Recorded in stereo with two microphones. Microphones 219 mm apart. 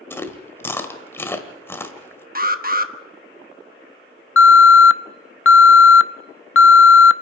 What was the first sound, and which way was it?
Chewing, 10° left (ahead or behind).